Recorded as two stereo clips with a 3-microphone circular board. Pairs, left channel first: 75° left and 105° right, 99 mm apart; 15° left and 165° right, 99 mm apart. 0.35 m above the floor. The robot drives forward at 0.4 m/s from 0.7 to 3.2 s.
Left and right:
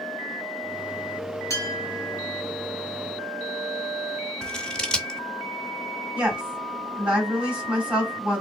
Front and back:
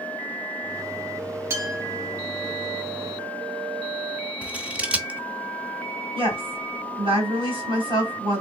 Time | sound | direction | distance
1.5 | a clink | 135° left | 1.2 m
4.4 | scissors | 140° left | 0.5 m
6.2 | a woman speaking | 175° left | 2.5 m